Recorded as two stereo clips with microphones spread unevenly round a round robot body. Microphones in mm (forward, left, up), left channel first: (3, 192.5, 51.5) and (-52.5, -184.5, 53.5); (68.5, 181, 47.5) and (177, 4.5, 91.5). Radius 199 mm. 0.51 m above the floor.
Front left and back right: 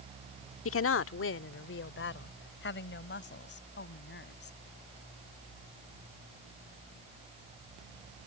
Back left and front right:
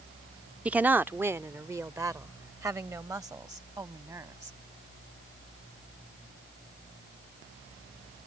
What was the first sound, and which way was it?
A woman speaking, 35° left.